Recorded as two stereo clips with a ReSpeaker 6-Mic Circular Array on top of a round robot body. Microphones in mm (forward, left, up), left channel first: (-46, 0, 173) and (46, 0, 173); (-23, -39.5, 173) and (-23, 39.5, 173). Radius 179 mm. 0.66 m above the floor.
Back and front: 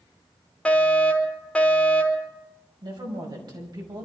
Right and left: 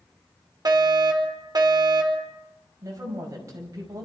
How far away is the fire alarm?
About 3.5 m.